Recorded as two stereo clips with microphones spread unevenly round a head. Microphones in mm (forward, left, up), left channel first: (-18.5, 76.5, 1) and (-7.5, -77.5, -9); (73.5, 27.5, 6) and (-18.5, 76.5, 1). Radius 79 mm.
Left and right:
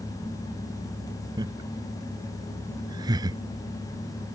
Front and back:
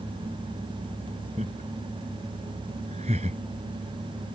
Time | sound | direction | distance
1.4 | laughter | 155° right | ?